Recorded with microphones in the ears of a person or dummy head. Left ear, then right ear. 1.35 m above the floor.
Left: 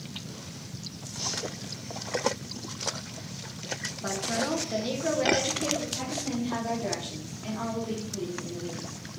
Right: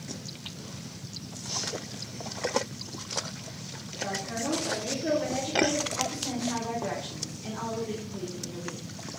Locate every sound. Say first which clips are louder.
4.0 s a woman speaking: left 2 dB; 50° left (ahead or behind), 0.9 m
6.0 s a woman speaking: right 1 dB; centre (ahead or behind), 1.4 m